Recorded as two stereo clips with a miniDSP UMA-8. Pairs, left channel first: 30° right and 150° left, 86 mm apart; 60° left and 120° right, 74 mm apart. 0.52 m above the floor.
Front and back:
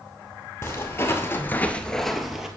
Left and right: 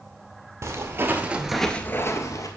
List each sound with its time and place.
0.6 s footsteps: 85° right, 0.9 m; by 2.5 s 65° left, 0.8 m